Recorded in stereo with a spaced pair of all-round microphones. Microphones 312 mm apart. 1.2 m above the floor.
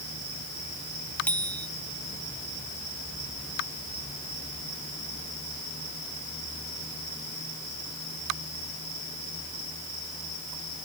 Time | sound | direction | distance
1.3 | a bicycle bell | 5° left (ahead or behind) | ?